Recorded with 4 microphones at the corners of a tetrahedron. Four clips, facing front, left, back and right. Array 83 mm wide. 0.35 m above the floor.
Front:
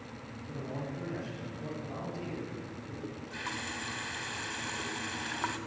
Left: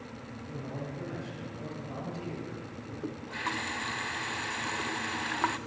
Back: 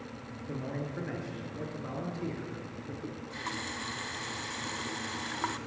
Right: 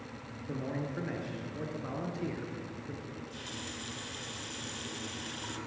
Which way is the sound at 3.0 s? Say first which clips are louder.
Left 9 dB, even; 95° left.